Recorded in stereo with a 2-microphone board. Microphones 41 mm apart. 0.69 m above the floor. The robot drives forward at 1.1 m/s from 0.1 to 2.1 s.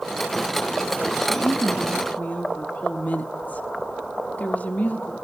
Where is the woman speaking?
40° left (ahead or behind), 1.1 m; by 5.1 s 45° left (ahead or behind), 1.1 m.